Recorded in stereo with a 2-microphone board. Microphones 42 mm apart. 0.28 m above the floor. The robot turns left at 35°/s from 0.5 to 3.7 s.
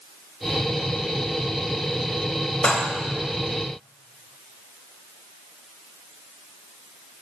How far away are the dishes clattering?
About 0.9 m.